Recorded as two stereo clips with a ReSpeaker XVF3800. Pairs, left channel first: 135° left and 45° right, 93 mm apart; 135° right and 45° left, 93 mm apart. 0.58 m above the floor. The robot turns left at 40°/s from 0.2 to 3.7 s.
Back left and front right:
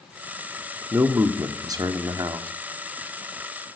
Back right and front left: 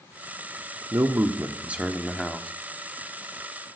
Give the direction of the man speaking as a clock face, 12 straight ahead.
12 o'clock.